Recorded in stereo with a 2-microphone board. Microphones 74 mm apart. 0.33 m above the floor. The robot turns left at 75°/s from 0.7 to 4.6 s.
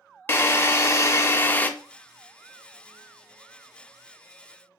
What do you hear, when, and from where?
0.3 s a drill: 25° left (ahead or behind), 0.5 m; by 1.7 s 20° left (ahead or behind), 0.5 m